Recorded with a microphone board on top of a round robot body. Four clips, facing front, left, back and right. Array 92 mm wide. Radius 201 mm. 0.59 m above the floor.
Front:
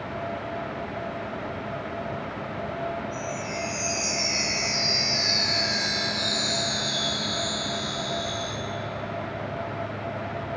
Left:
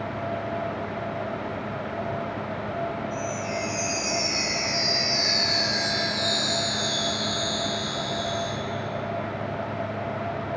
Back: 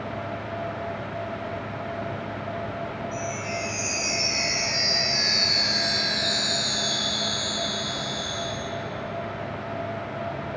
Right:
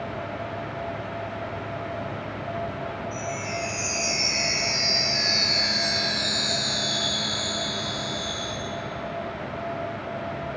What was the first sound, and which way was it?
A chime, 155° right.